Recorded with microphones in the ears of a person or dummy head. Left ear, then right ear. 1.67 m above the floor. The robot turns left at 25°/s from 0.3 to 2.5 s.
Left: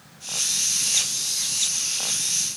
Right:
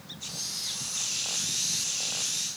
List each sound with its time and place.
Only background noise.